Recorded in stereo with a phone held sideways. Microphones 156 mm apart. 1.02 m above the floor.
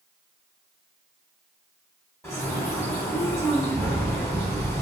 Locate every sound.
2.2 s a bird: 15° left (ahead or behind), 1.2 m